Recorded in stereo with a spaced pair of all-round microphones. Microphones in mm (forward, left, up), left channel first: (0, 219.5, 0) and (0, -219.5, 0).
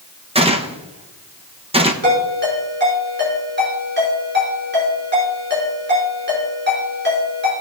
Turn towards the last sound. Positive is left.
turn(degrees=-25)  # may be behind; listen again after turning